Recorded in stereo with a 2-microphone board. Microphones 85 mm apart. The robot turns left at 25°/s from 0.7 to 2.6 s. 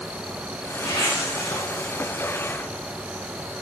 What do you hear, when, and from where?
0.8 s a zipper: 75° left (ahead or behind), 2.5 m; by 1.6 s 55° left (ahead or behind), 2.5 m